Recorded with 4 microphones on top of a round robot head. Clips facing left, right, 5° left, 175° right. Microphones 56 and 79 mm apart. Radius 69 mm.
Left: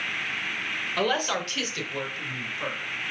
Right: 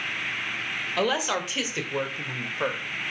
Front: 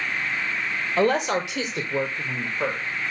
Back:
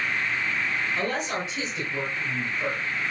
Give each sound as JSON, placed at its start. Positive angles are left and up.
{"t": 1.0, "sound": "a woman speaking", "azimuth_deg": 0, "distance_m": 3.0}